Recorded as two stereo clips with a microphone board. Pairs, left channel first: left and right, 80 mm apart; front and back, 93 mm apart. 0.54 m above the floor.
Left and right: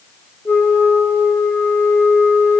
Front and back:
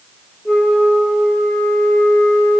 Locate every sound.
0.5 s a flute: 70° left, 1.2 m